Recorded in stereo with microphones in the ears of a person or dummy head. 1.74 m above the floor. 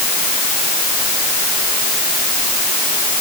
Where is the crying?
No crying in this recording.